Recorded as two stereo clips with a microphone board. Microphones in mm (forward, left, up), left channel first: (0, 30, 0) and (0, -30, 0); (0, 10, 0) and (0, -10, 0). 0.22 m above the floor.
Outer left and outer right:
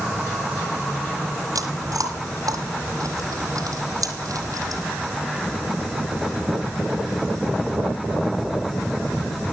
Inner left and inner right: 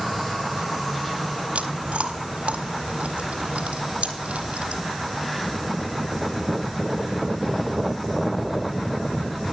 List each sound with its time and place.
1.6 s chewing: 85° right, 1.4 m